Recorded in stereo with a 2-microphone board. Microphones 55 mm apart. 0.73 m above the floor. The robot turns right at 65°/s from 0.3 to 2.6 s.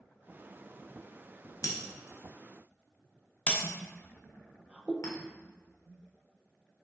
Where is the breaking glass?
80° left, 0.7 m; by 3.5 s 25° left (ahead or behind), 0.7 m.